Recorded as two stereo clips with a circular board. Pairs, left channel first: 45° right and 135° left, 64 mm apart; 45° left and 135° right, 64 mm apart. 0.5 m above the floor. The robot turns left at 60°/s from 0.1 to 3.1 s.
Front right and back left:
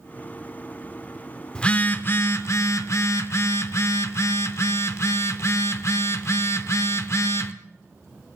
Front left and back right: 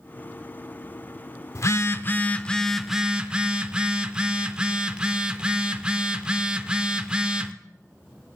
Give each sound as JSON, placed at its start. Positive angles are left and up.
{"t": 1.6, "sound": "a phone buzzing", "azimuth_deg": 25, "distance_m": 0.6}